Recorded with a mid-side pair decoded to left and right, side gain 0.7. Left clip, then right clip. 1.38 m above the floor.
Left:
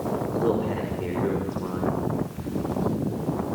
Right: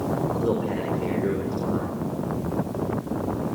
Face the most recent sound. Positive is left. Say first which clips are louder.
# left 1 dB
turn(degrees=0)